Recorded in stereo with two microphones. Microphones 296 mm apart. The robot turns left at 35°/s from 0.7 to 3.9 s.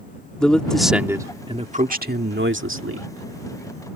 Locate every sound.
0.4 s a man speaking: 5° left; by 3.1 s 80° right